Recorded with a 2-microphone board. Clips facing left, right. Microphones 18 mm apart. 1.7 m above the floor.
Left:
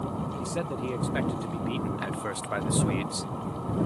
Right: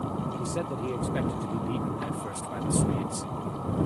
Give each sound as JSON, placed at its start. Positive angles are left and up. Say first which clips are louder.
{"t": 0.4, "sound": "a man speaking", "louder": "even", "side_deg": 10}